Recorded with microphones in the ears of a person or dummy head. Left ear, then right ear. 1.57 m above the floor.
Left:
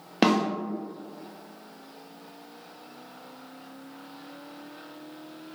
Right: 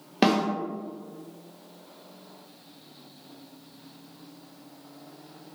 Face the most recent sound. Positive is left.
turn(degrees=10)  # may be behind; listen again after turning